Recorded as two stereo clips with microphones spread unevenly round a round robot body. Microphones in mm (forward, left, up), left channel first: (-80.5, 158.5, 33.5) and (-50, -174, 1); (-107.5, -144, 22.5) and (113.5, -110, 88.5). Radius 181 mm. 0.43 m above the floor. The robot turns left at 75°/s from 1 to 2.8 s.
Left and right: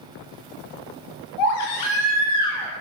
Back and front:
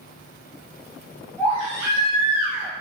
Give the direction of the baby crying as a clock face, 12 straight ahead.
9 o'clock.